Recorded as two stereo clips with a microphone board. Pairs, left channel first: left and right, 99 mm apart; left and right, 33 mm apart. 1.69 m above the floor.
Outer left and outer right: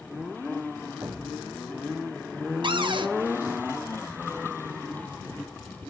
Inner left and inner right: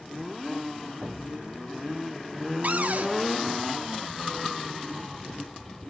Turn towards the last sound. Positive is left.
turn(degrees=-55)  # may be behind; listen again after turning